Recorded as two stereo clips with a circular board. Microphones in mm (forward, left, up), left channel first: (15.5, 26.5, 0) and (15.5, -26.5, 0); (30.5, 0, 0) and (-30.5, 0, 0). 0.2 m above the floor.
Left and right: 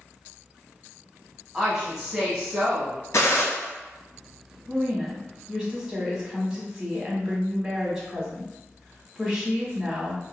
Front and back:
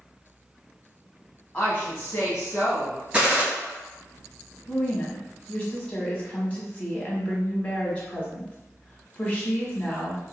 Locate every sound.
1.5 s a woman speaking: 35° right, 1.0 m; by 3.0 s 25° right, 1.5 m
3.1 s a gunshot: 110° left, 0.9 m
4.7 s a woman speaking: 35° right, 1.1 m